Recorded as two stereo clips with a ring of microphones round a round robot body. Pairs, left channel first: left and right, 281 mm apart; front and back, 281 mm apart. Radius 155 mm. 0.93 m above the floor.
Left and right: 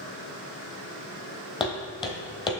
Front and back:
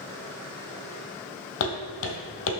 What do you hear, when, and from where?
1.6 s footsteps: 20° left, 1.4 m